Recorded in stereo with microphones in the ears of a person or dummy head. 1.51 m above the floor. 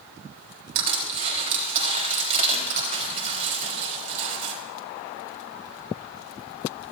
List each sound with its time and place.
0.8 s crushing: 35° right (ahead or behind), 3.5 m